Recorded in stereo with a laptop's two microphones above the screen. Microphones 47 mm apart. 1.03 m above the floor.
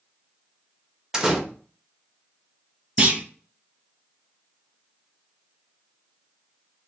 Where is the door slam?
10° right (ahead or behind), 0.7 m.